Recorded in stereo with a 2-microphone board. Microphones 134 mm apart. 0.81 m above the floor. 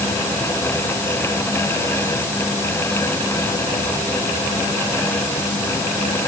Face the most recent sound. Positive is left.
No sound to turn to.